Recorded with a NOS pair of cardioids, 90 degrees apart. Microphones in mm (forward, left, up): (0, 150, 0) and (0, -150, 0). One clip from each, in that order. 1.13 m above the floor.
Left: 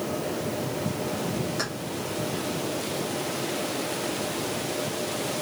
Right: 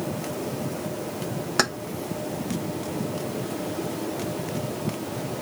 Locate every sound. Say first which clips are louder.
1.6 s keys jangling: right 11 dB; 70° right, 0.8 m